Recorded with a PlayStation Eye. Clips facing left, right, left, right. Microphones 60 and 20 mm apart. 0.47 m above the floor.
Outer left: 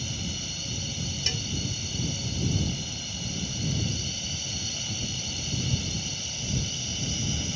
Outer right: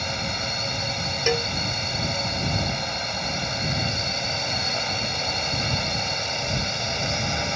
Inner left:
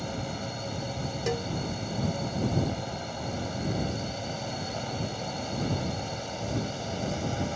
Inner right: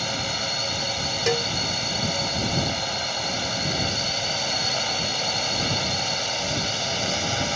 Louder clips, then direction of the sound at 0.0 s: Outer right 8 dB, inner right 9 dB; 60° right (ahead or behind).